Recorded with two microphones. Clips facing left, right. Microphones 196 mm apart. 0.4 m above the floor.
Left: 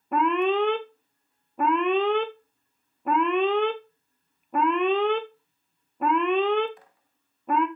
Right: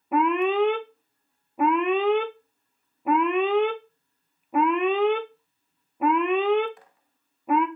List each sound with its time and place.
0.1 s an alarm: 5° right (ahead or behind), 0.6 m